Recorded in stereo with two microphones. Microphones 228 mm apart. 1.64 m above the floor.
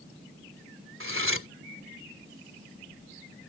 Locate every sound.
1.0 s cutlery clinking: 65° right (ahead or behind)